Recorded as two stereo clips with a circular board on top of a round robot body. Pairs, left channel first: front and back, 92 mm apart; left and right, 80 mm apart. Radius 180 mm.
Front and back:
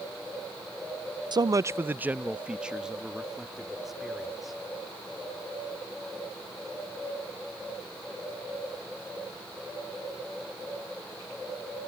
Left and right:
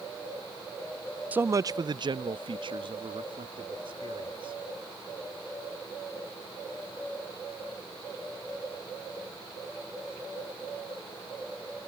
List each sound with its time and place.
1.3 s a man speaking: 155° right; by 4.6 s 90° right